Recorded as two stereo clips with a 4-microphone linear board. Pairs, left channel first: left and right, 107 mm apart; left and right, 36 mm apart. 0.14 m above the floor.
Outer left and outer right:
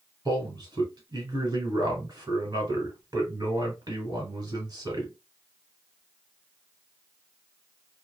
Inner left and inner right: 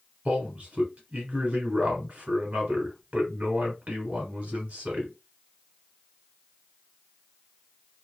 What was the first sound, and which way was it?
A man speaking, 40° right (ahead or behind).